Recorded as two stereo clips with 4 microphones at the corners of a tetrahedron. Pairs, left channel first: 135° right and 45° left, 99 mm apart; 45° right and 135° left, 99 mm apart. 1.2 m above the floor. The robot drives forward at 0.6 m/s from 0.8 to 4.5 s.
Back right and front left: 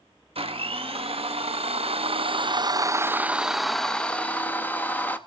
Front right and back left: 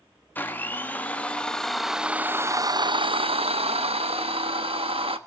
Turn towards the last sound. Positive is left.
turn(degrees=150)